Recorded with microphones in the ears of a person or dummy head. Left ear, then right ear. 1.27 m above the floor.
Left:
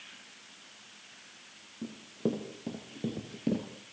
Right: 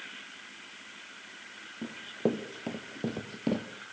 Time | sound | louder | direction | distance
1.8 | running footsteps | right 3 dB | 25° right (ahead or behind) | 2.5 m